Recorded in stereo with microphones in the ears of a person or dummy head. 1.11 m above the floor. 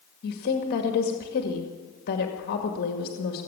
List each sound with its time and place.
0.2 s a woman speaking: 50° left (ahead or behind), 2 m